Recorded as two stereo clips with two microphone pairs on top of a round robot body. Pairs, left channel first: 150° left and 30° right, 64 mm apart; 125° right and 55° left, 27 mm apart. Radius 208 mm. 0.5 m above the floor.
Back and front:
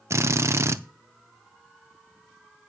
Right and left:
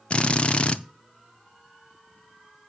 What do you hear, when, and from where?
0.1 s a drill: 75° right, 0.5 m